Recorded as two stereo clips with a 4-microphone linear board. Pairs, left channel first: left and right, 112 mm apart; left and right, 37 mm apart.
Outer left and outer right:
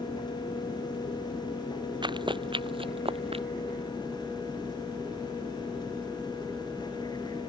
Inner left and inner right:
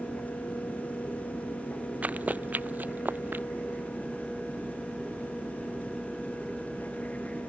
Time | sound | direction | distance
2.0 | running footsteps | 45° right (ahead or behind) | ?